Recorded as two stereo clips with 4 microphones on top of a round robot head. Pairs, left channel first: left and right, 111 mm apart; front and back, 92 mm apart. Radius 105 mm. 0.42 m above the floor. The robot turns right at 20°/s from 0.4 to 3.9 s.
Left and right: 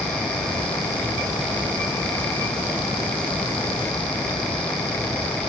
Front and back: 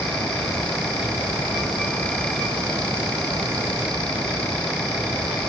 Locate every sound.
Only background noise.